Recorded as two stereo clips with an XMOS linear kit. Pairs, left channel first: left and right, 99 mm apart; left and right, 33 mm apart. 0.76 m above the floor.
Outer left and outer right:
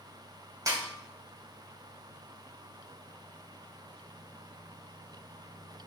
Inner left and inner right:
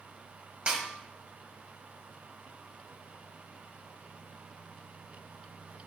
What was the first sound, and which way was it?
A snare drum, 40° right (ahead or behind).